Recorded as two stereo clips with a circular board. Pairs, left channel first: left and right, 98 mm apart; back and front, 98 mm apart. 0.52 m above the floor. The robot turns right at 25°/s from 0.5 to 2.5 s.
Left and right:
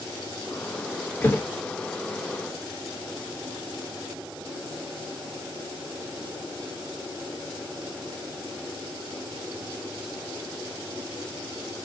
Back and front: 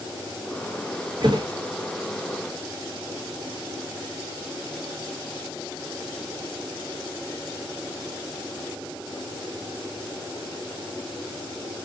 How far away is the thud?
About 0.9 m.